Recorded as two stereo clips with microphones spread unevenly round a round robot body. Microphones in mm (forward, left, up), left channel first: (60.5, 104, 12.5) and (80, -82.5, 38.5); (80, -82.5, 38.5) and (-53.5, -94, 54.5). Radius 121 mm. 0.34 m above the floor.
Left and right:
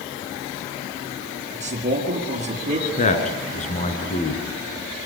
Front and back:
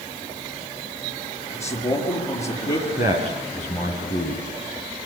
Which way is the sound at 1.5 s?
35° right.